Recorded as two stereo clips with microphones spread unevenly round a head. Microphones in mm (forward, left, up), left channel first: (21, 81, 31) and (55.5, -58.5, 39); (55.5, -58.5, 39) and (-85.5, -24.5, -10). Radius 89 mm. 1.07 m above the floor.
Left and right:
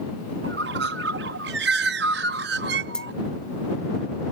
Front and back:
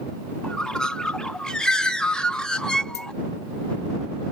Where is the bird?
90° right.